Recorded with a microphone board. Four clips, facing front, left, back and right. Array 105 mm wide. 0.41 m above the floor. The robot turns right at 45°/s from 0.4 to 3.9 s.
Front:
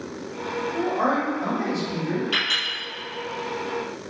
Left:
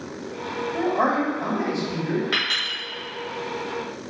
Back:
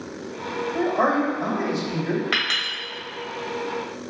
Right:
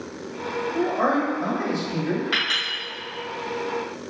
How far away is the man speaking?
About 1.7 m.